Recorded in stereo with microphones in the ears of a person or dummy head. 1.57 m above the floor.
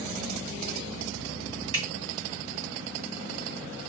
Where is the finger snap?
35° right (ahead or behind), 1.5 m.